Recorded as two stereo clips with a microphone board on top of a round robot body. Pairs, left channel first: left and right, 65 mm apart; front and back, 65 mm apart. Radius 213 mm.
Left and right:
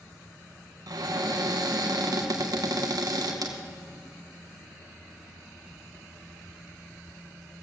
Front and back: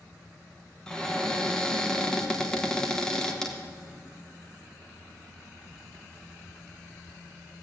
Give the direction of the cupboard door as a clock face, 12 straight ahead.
3 o'clock.